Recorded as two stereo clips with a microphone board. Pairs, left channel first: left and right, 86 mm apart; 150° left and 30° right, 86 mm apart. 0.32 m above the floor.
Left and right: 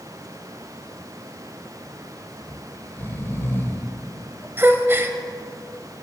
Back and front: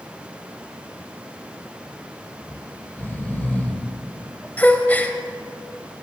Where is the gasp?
145° right, 0.8 m.